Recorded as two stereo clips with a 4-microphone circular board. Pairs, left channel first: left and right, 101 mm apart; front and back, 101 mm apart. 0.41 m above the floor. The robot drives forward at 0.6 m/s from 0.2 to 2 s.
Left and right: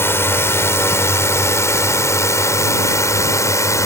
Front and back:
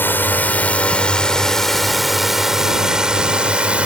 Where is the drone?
50° left; by 3.9 s 110° left.